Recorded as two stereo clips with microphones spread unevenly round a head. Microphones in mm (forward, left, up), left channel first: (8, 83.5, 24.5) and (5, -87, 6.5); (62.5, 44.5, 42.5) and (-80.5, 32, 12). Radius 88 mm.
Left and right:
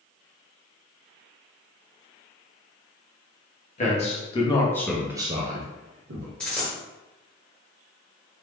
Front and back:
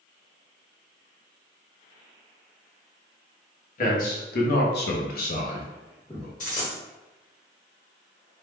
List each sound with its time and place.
3.8 s a man speaking: 35° left, 1.1 m; by 6.3 s 90° right, 0.9 m
6.4 s a dropped coin: 10° left, 1.1 m